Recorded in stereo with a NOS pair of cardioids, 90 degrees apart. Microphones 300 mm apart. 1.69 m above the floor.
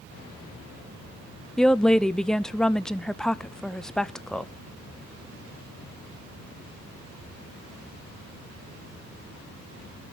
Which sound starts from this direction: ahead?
A woman speaking, at 1.6 s.